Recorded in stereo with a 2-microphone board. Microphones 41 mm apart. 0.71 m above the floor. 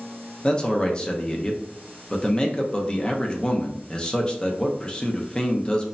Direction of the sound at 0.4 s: 25° left (ahead or behind).